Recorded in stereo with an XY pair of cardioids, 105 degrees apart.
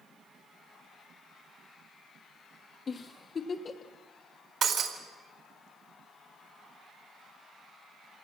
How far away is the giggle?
About 1.4 m.